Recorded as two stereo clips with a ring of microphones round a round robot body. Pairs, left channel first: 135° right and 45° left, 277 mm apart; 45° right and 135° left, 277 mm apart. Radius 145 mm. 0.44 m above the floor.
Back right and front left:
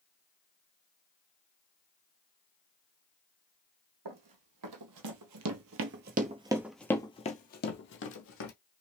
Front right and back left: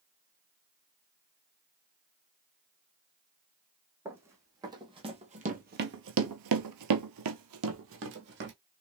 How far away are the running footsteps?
About 1.5 m.